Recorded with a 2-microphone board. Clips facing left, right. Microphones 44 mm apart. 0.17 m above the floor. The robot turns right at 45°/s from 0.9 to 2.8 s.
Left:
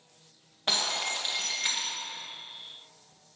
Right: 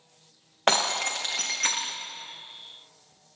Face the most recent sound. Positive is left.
turn(degrees=-20)